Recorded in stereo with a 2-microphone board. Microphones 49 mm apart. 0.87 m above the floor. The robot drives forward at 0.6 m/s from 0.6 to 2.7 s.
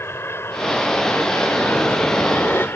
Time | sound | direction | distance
0.0 | an aircraft | 55° left (ahead or behind) | ?